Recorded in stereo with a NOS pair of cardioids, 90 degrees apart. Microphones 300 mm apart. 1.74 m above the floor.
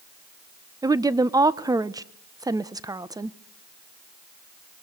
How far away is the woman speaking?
About 1.3 m.